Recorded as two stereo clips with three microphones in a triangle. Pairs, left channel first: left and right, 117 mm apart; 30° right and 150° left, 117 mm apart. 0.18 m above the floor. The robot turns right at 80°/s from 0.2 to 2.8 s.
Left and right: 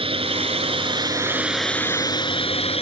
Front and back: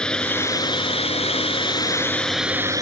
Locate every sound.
0.0 s a drone: 110° right; by 2.8 s 95° left